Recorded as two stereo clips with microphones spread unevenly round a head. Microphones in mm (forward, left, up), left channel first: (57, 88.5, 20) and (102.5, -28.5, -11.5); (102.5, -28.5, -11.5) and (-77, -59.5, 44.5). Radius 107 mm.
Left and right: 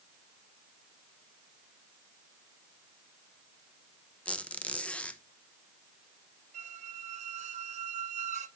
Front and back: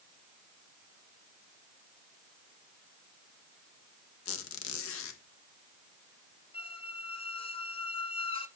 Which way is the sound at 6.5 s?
60° right.